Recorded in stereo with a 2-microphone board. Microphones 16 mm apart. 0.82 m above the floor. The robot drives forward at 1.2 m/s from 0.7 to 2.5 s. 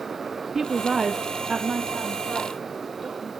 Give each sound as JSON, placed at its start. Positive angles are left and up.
{"t": 0.6, "sound": "a woman speaking", "side_deg": -30, "distance_m": 0.6}